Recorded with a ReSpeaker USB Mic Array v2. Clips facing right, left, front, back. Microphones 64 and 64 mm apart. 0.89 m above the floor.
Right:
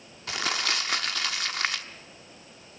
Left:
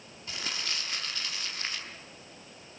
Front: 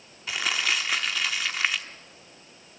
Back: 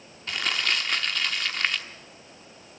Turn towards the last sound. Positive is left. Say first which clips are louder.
# right 8 dB, even
turn(degrees=-85)